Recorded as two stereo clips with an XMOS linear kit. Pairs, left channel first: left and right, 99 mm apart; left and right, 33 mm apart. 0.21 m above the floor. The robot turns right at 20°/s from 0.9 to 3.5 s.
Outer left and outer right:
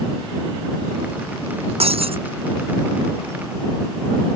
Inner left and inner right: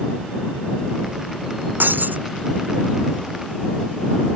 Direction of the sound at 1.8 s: 75° right (ahead or behind).